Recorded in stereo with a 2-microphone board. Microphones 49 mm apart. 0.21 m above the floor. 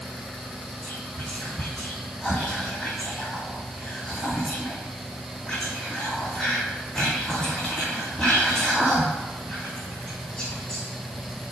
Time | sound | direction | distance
0.8 | whispering | 10° left (ahead or behind) | 1.5 m